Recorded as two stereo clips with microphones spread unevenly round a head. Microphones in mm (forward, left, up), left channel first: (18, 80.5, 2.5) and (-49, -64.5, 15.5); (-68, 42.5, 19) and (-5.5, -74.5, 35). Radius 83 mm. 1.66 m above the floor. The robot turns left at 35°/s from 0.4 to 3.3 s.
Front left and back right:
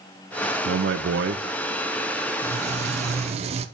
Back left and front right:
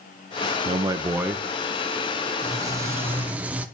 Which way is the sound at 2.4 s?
100° right.